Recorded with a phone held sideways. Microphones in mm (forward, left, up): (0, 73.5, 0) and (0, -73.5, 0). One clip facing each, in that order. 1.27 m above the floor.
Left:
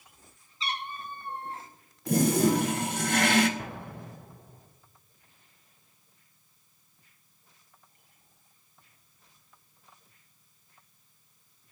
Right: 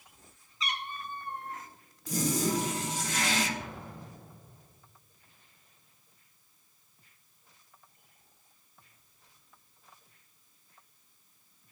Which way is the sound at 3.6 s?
65° left (ahead or behind).